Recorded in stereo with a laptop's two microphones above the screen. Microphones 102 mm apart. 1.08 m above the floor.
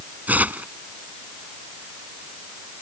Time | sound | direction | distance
0.3 | tearing paper | 15° right (ahead or behind) | ?